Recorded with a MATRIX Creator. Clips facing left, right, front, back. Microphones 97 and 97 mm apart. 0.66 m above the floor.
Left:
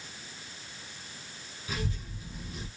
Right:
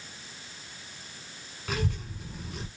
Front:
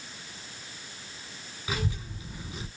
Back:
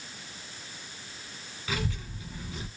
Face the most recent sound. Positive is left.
turn(degrees=-75)